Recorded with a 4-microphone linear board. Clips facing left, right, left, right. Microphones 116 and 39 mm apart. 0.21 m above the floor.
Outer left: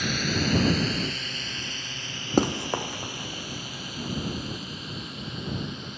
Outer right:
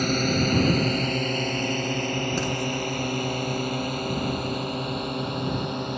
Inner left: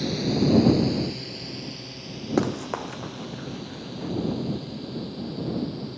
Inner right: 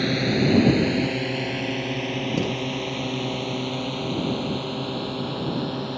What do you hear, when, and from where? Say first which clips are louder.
0.0 s a drone: outer right 5 dB, inner right 2 dB; 45° right (ahead or behind); by 6.0 s 60° right (ahead or behind)
2.4 s running footsteps: outer left 2 dB, even; 55° left (ahead or behind); by 4.1 s 85° left